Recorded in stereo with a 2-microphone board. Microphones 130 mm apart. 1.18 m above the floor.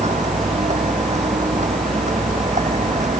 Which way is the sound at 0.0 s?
60° right (ahead or behind).